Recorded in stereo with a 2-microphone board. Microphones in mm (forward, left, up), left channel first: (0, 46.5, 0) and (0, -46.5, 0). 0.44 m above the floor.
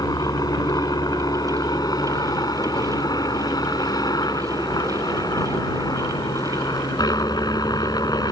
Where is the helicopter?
40° left (ahead or behind).